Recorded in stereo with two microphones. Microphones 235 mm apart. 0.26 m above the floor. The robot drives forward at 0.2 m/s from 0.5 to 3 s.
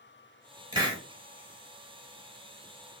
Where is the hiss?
20° right (ahead or behind), 0.8 m.